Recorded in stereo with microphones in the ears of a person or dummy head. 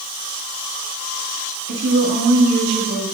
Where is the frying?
No frying in this recording.